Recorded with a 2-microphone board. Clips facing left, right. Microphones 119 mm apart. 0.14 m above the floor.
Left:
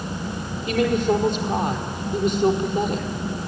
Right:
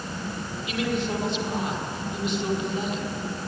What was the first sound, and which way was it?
A woman speaking, 45° left (ahead or behind).